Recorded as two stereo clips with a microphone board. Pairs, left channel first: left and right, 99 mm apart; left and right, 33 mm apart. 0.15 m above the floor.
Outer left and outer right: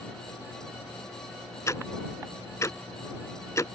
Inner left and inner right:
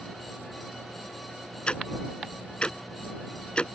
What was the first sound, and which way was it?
Ticking, 30° left (ahead or behind).